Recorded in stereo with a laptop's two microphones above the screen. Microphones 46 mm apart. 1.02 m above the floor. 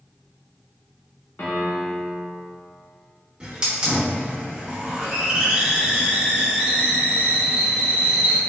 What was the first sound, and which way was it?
A piano, 55° left (ahead or behind).